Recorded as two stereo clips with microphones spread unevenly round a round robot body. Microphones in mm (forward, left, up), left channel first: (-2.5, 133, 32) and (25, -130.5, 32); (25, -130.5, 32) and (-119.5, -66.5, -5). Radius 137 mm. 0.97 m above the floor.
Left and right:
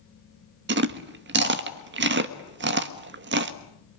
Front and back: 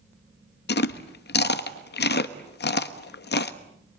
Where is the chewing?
35° right, 1.4 m.